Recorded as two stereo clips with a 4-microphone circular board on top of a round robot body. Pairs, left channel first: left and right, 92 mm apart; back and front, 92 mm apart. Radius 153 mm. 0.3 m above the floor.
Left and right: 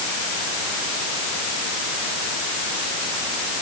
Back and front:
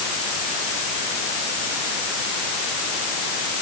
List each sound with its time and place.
Only background noise.